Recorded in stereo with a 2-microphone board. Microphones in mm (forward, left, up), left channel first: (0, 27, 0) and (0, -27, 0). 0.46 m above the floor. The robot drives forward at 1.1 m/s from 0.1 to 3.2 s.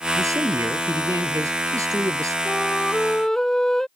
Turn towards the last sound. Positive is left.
turn(degrees=10)  # may be behind; listen again after turning